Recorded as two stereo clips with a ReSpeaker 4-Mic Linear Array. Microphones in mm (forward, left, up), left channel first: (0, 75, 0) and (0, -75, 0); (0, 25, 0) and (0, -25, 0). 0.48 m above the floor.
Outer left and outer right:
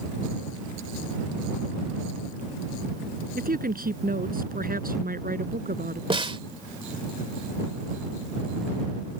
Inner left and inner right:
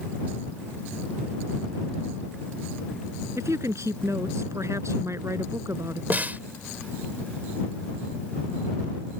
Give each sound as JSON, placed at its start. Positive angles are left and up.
{"t": 3.4, "sound": "a woman speaking", "side_deg": -75}
{"t": 6.1, "sound": "a snare drum", "side_deg": -35}